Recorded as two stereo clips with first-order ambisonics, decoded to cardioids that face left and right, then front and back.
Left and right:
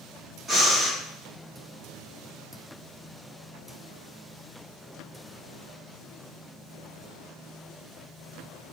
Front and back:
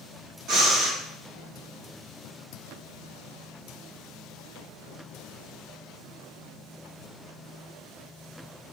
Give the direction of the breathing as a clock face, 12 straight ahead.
6 o'clock.